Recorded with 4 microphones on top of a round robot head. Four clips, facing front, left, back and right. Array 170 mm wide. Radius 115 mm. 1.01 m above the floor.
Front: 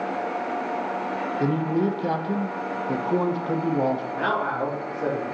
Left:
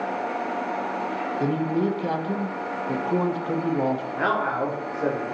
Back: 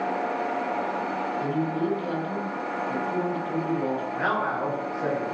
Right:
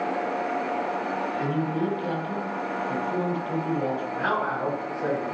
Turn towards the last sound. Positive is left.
turn(degrees=65)